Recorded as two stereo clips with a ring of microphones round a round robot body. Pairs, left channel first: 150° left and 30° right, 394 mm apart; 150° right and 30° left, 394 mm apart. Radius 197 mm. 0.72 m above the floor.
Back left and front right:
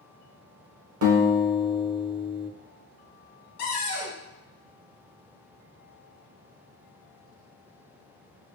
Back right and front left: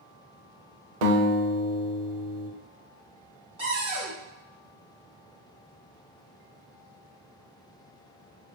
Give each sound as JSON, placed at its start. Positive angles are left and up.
{"t": 1.0, "sound": "a guitar", "azimuth_deg": 25, "distance_m": 0.9}
{"t": 3.6, "sound": "a cupboard door", "azimuth_deg": 105, "distance_m": 1.8}